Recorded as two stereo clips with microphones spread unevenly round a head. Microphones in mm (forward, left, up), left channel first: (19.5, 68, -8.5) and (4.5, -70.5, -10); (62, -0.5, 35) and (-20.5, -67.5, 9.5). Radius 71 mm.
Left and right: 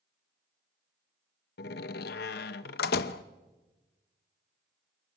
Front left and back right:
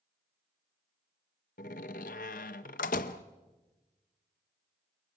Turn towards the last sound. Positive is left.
turn(degrees=70)